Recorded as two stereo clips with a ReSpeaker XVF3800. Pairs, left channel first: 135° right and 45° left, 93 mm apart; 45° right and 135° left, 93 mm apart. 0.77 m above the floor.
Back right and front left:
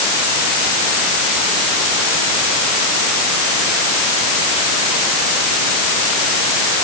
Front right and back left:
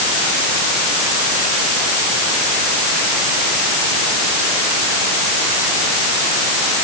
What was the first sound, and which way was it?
Only background noise.